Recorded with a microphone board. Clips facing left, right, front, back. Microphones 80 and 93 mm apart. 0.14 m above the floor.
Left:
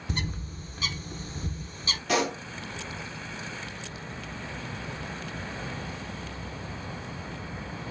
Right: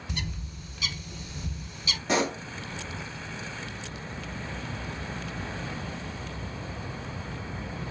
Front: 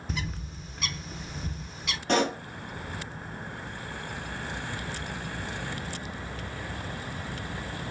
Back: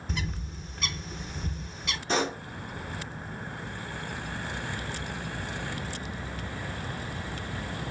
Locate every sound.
0.1 s a bird: 90° left, 0.5 m
2.1 s a pop: 25° right, 1.6 m